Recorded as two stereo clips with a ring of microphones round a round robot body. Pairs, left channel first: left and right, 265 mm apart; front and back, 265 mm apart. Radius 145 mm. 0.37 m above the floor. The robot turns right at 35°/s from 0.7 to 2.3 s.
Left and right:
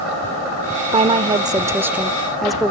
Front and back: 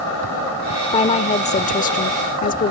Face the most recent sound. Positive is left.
turn(degrees=0)